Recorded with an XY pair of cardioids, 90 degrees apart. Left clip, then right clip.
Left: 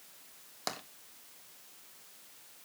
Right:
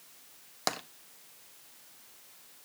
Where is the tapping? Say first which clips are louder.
Right 6 dB; 45° right, 1.2 m.